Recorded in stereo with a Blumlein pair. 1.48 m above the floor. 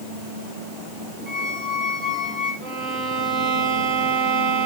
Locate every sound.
1.3 s a squeak: straight ahead, 5 m
2.6 s a violin: 10° right, 3.5 m